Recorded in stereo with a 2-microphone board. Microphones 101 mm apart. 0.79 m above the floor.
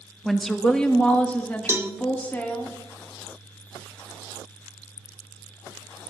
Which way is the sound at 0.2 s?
Centre (ahead or behind).